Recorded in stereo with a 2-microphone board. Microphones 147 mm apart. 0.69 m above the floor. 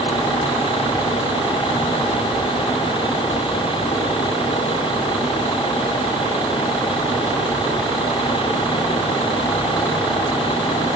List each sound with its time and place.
Only background noise.